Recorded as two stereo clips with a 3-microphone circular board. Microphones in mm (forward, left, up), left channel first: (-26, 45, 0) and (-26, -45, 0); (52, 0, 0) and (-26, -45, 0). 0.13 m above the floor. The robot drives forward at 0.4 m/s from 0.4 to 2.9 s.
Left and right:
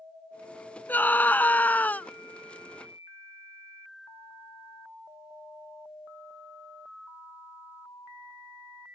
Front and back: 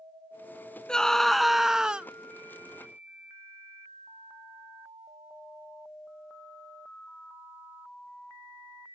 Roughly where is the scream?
Left.